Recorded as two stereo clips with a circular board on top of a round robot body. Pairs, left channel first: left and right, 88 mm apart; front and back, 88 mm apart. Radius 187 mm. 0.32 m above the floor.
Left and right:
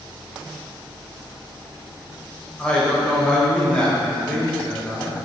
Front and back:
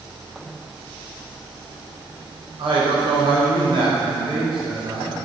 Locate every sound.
2.6 s a man speaking: 170° left, 3 m